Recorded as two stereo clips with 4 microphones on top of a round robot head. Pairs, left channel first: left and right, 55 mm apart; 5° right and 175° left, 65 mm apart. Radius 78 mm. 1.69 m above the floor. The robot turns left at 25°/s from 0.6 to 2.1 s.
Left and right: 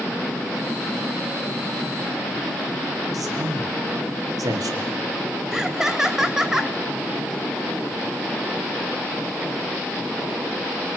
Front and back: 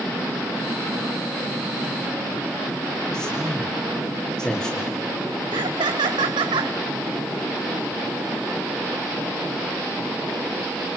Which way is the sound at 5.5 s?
175° right.